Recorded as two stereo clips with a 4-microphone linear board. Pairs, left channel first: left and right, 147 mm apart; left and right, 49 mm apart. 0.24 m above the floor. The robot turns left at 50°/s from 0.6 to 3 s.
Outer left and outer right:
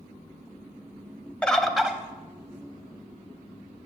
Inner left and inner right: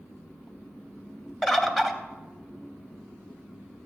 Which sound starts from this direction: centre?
A bird, at 1.4 s.